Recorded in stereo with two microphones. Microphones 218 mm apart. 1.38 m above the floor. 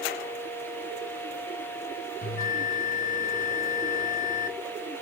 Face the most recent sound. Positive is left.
turn(degrees=85)